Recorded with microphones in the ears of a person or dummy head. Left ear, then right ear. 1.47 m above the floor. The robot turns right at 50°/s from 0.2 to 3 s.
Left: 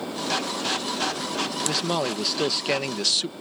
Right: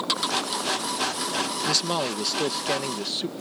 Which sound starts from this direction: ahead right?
A man speaking, at 1.6 s.